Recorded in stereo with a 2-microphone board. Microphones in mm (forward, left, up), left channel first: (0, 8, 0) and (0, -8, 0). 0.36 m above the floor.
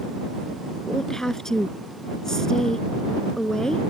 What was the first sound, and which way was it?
A woman speaking, 30° left (ahead or behind).